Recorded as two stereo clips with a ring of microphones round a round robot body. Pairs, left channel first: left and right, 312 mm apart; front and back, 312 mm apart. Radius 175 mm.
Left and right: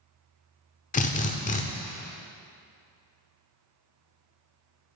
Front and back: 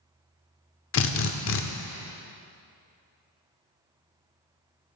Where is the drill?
30° left, 0.7 m.